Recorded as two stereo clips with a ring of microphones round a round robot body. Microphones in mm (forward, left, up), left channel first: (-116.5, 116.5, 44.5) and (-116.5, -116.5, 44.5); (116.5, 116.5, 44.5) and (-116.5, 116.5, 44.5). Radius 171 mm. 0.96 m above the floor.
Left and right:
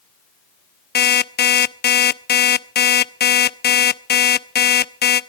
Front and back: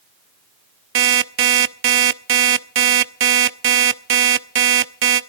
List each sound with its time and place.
0.9 s an alarm clock: 140° left, 0.7 m